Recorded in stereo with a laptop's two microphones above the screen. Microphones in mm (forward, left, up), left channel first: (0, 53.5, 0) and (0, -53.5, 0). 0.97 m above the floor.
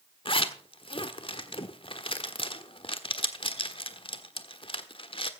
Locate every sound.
0.2 s a zipper: 55° left (ahead or behind), 1.3 m